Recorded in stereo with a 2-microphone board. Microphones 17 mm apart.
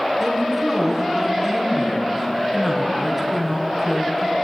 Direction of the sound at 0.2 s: 10° right (ahead or behind).